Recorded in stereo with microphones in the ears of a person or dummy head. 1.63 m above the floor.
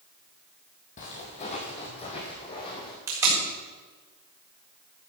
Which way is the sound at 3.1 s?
15° right (ahead or behind).